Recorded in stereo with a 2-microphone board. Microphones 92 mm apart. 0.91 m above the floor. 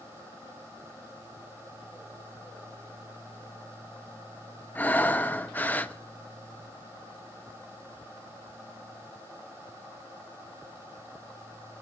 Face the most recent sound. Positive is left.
turn(degrees=20)  # may be behind; listen again after turning